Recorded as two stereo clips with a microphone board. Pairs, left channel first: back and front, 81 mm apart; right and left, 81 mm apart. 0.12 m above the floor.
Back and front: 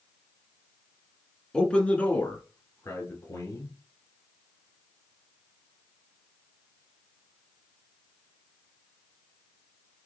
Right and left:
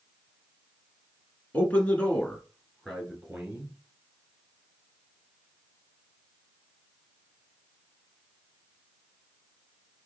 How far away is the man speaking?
About 1.3 m.